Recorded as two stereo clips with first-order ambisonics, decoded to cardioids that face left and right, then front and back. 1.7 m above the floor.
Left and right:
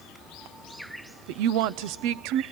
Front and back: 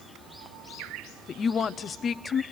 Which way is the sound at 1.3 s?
70° right.